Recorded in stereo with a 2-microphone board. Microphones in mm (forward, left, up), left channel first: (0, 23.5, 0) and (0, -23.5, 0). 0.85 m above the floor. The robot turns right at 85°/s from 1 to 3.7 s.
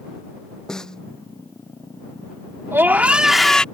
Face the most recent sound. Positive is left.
turn(degrees=25)